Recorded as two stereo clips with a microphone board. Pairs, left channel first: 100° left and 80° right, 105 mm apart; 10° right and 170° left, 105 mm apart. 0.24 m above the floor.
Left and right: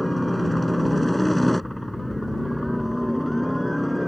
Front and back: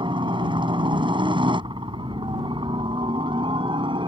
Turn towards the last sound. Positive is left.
turn(degrees=-170)